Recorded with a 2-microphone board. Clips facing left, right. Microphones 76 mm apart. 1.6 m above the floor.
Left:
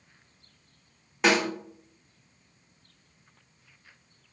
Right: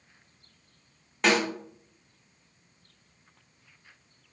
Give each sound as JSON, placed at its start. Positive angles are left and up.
{"t": 1.2, "sound": "a snare drum", "side_deg": 5, "distance_m": 1.1}